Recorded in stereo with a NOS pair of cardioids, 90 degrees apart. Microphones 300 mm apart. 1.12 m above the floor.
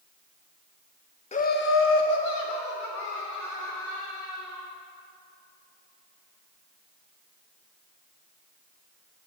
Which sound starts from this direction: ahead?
Laughter, at 1.3 s.